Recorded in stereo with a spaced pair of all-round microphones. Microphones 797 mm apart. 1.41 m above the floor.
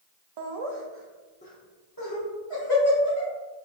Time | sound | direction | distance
0.4 | laughter | 65° right (ahead or behind) | 0.7 m